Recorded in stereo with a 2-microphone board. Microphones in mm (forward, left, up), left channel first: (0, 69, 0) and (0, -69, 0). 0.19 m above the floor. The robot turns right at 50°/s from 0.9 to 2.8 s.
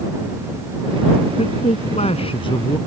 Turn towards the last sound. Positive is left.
turn(degrees=145)